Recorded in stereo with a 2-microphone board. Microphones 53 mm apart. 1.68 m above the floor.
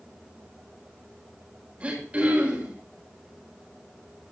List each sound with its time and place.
1.8 s throat clearing: 25° right (ahead or behind), 7.5 m